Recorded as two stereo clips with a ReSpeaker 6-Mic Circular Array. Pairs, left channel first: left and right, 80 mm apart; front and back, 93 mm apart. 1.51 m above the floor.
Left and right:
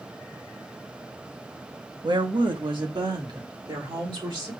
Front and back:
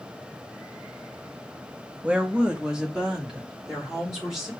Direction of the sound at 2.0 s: 105° right.